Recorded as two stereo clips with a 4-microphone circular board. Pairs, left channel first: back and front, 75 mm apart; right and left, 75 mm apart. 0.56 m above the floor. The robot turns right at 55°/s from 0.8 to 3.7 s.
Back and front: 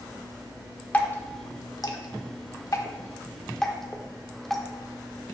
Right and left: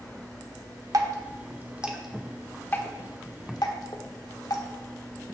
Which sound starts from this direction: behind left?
Dripping, at 0.9 s.